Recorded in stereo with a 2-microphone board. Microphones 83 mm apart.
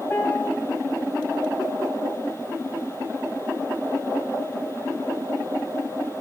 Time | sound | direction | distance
0.1 | a piano | 25° left (ahead or behind) | 0.9 m